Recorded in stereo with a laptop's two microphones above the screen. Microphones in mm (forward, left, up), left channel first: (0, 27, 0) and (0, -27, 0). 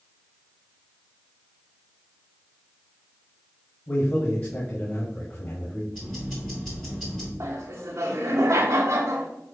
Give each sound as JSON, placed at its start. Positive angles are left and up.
{"t": 3.9, "sound": "a man speaking", "side_deg": 40, "distance_m": 1.4}
{"t": 5.9, "sound": "ticking", "side_deg": 5, "distance_m": 2.5}
{"t": 7.4, "sound": "laughter", "side_deg": -80, "distance_m": 0.9}